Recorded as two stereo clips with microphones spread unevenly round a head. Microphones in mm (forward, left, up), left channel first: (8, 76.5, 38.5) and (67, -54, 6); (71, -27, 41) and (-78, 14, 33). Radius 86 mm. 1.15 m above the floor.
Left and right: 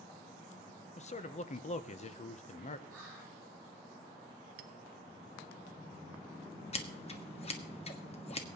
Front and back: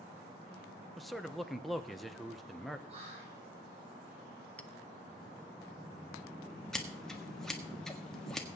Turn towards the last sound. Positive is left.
turn(degrees=70)